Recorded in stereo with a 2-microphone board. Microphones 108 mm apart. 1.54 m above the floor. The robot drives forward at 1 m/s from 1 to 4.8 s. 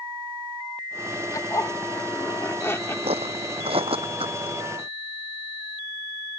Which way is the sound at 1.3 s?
35° left (ahead or behind).